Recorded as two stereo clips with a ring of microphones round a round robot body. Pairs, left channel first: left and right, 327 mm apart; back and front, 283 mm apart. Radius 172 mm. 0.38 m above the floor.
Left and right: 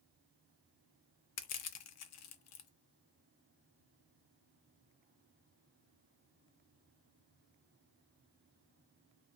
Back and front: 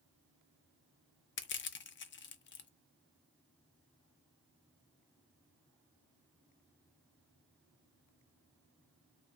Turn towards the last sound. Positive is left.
turn(degrees=130)